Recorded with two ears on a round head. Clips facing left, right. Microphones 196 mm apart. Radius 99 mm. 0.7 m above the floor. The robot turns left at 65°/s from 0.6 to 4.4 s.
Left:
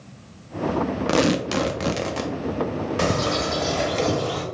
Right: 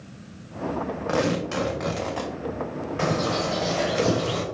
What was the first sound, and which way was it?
Tearing paper, 105° left.